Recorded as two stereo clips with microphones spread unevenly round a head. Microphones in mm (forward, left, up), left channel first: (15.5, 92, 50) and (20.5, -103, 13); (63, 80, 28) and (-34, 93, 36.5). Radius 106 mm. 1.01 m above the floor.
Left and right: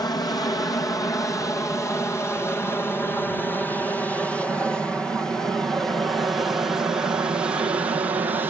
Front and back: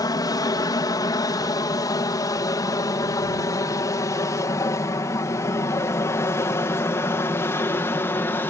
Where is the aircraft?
15° left; by 8.5 s 40° right.